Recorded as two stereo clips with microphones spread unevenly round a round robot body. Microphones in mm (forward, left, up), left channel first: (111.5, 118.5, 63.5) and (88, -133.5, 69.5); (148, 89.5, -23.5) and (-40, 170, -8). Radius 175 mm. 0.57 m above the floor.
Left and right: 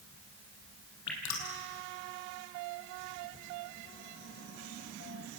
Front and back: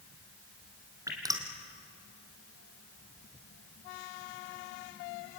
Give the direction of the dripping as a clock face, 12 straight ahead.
9 o'clock.